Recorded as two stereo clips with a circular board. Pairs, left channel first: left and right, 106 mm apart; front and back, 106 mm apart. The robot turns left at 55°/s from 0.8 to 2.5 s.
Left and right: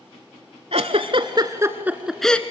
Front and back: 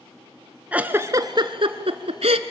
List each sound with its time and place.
0.7 s a giggle: 105° right, 0.8 m; by 2.4 s 165° left, 0.8 m